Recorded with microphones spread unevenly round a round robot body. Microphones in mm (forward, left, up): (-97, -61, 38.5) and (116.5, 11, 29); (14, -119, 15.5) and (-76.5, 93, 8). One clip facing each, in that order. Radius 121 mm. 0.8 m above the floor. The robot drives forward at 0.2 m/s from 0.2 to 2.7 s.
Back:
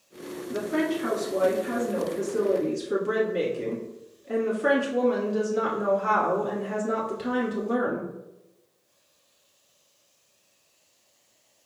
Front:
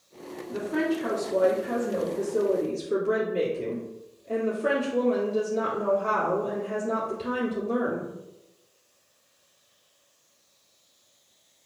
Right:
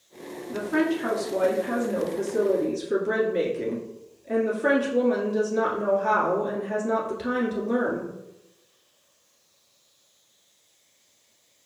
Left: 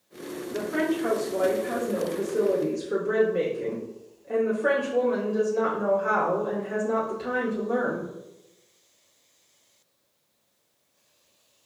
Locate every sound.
0.5 s a woman speaking: 90° right, 1.7 m; by 8.1 s 110° right, 1.8 m